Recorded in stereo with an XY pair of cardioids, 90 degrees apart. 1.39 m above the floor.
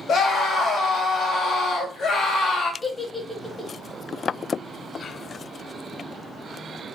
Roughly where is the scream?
Left.